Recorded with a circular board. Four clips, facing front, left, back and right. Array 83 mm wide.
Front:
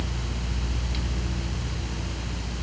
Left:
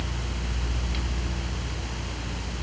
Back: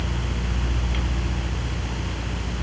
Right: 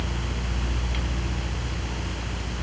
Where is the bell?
No bell in this recording.